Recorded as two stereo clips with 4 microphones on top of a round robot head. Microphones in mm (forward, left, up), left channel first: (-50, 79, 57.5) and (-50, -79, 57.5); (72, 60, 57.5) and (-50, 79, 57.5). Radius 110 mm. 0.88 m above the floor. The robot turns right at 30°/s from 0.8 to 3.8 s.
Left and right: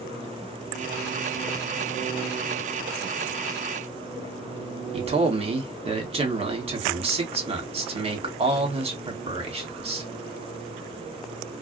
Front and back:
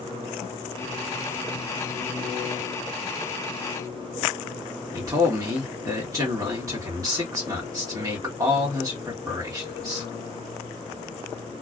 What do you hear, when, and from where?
4.9 s a man speaking: 130° right, 1.5 m